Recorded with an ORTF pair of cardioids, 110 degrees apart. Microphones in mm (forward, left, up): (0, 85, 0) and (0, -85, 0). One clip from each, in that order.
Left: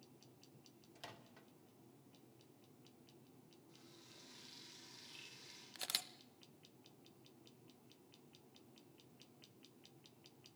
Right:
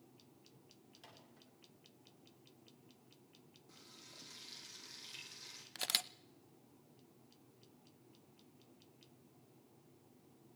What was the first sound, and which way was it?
A microwave, 45° left.